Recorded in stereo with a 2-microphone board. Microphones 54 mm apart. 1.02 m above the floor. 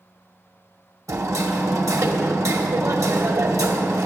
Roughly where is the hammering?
Right.